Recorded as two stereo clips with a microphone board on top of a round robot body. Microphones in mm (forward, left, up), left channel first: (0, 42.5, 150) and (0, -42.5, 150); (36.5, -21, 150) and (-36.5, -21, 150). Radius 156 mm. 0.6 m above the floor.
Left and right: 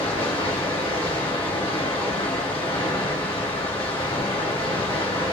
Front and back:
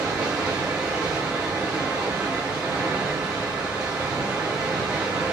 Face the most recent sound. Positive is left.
turn(degrees=105)